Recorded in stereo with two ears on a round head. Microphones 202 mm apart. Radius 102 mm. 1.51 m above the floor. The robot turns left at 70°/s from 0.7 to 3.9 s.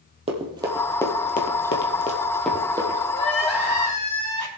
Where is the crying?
25° left, 3.5 m; by 4.5 s 30° right, 3.5 m.